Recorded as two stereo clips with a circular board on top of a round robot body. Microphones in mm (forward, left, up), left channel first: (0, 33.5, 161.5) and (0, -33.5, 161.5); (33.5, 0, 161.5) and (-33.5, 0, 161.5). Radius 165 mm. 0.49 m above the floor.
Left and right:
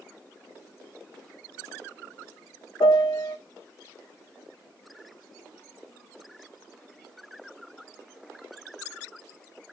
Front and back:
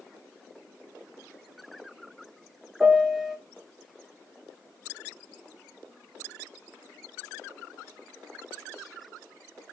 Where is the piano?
90° left, 0.7 m.